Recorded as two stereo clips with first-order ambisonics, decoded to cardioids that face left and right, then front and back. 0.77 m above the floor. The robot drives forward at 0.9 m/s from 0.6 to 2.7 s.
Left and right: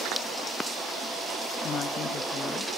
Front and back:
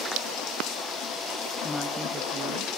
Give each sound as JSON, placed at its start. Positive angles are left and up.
{"t": 1.6, "sound": "a woman speaking", "azimuth_deg": 55, "distance_m": 0.8}